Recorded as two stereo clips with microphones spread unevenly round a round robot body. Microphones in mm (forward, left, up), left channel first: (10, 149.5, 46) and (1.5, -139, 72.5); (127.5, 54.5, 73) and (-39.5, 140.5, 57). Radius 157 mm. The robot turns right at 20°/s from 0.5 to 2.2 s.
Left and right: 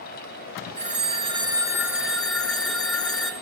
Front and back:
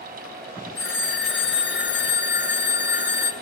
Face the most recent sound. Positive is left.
turn(degrees=0)